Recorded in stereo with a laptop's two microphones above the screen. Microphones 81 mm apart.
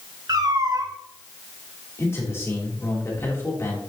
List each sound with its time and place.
0.3 s a cat meowing: 55° right (ahead or behind), 0.9 m
2.0 s a man speaking: 35° left (ahead or behind), 3 m